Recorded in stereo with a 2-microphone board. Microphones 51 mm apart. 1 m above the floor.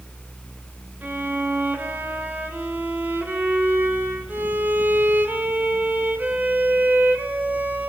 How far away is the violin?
About 3 m.